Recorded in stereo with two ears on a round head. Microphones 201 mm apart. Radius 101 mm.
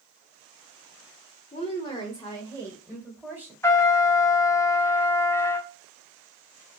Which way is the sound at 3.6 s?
10° left (ahead or behind).